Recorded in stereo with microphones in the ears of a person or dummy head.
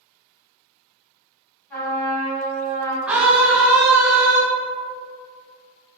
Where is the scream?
5° right (ahead or behind), 0.6 m.